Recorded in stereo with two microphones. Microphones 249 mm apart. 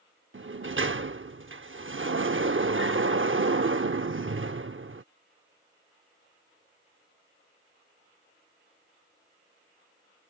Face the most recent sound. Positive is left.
turn(degrees=-55)  # may be behind; listen again after turning